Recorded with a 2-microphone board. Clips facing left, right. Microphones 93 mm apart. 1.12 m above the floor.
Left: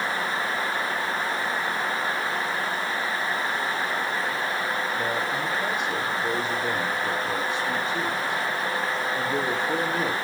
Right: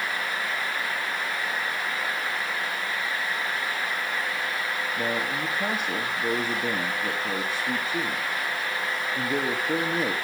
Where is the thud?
No thud in this recording.